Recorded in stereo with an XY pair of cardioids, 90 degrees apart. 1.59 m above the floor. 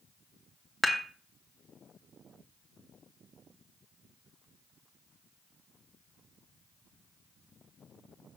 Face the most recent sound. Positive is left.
turn(degrees=5)